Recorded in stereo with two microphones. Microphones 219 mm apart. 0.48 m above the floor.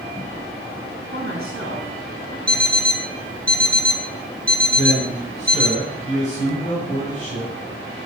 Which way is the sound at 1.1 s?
75° right (ahead or behind).